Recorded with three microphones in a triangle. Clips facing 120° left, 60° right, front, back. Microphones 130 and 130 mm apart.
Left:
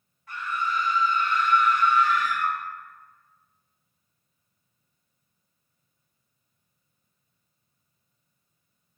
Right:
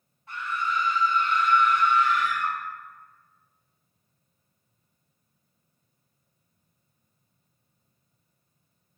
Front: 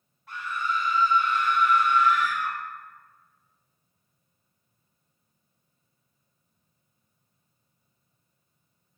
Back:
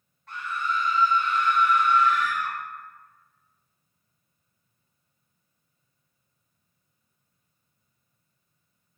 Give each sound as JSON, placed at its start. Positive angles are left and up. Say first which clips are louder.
{"t": 0.3, "sound": "a scream", "louder": "even, even", "azimuth_deg": -75, "distance_m": 1.7}